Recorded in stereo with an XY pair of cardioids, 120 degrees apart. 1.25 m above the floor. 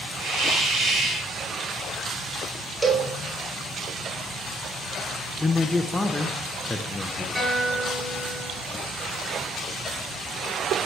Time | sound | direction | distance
0.2 | a hiss | 50° right | 5 m
2.8 | a cowbell | 25° right | 1.6 m
5.4 | a man speaking | 10° left | 0.8 m
7.3 | a guitar | 10° right | 4.5 m